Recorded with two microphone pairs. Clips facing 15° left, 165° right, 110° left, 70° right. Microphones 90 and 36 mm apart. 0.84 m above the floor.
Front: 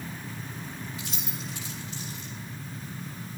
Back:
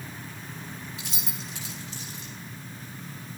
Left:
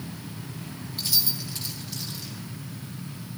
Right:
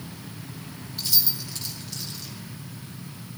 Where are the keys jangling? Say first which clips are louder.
Front 2 dB, even; 170° right, 2 m.